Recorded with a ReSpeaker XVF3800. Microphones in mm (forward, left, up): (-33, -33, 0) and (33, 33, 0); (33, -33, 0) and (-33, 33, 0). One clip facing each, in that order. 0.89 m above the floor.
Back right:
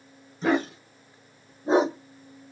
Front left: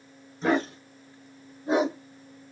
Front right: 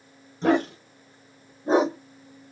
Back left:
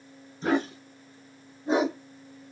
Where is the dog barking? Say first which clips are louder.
Back right 1 dB, front right 4 dB; 45° right, 1.2 m; by 2.0 s 100° right, 0.7 m.